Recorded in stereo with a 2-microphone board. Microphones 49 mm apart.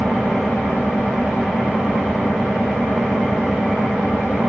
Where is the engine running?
10° right (ahead or behind), 1.6 m.